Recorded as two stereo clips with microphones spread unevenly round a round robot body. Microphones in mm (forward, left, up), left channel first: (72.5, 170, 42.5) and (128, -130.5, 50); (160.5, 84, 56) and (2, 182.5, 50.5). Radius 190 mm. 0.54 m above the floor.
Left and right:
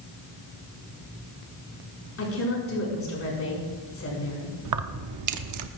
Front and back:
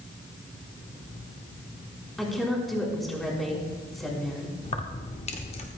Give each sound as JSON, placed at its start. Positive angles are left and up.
{"t": 2.2, "sound": "a woman speaking", "azimuth_deg": 60, "distance_m": 6.0}
{"t": 4.7, "sound": "keys jangling", "azimuth_deg": -90, "distance_m": 0.8}